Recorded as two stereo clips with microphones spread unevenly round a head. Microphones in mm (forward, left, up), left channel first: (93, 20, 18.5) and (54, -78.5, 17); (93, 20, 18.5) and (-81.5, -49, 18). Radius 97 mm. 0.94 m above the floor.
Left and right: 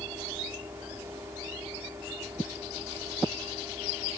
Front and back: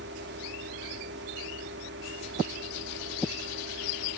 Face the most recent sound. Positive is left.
turn(degrees=170)